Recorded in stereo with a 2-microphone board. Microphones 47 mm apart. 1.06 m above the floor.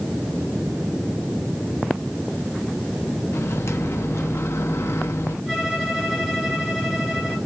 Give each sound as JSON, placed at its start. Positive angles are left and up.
{"t": 3.3, "sound": "a microwave", "side_deg": 85, "distance_m": 1.2}
{"t": 5.5, "sound": "a violin", "side_deg": -5, "distance_m": 6.0}